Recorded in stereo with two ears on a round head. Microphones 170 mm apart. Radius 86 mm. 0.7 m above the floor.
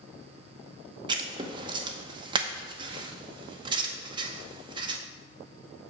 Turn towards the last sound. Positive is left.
turn(degrees=-25)  # may be behind; listen again after turning